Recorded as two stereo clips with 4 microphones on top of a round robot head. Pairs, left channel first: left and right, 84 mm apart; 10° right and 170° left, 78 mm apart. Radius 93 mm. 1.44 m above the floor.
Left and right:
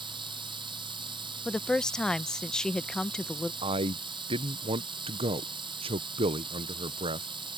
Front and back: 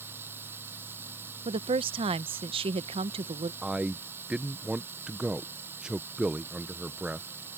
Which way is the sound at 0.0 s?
120° right.